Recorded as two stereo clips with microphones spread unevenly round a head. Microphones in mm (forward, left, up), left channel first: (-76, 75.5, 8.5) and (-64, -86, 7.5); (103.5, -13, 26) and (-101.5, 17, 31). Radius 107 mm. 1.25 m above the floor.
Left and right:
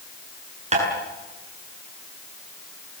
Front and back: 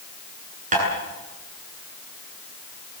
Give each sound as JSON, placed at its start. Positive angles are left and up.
{"t": 0.7, "sound": "tapping", "azimuth_deg": -130, "distance_m": 8.5}